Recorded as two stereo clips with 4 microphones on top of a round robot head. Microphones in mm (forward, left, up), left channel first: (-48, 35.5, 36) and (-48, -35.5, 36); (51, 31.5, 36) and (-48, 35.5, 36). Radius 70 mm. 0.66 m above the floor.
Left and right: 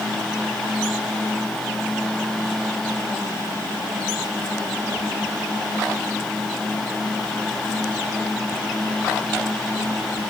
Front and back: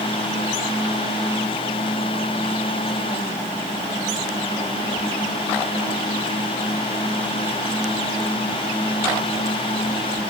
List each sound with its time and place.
Only background noise.